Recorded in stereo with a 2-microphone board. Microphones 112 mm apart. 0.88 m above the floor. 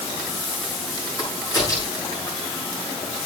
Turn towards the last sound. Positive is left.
turn(degrees=30)  # may be behind; listen again after turning